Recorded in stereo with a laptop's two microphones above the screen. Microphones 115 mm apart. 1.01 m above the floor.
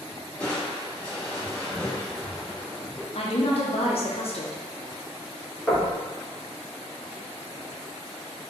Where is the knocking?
Centre (ahead or behind), 0.9 m.